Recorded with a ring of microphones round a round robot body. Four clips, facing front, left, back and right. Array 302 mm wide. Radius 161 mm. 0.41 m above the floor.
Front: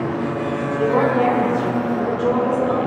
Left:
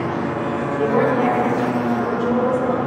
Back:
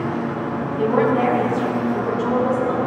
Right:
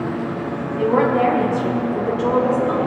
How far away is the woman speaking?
About 4.5 m.